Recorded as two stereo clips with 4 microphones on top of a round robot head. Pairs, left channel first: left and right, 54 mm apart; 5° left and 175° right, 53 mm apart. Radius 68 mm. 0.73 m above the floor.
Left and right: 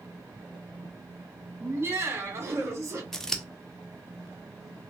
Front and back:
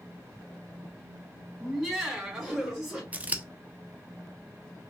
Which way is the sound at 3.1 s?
160° left.